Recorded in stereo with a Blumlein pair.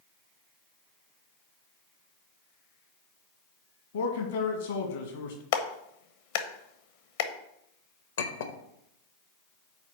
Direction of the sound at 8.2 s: 65° left.